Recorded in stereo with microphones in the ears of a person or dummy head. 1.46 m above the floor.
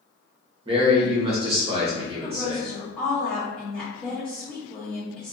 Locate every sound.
0.7 s a man speaking: 25° right (ahead or behind), 1.0 m
2.2 s a woman speaking: 15° left (ahead or behind), 1.2 m